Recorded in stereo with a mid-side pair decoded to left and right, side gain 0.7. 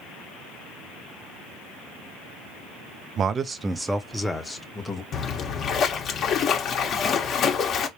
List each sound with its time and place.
3.2 s a man speaking: 40° right, 0.7 m; by 5.0 s 15° left, 1.5 m
5.1 s a splash: 40° left, 1.4 m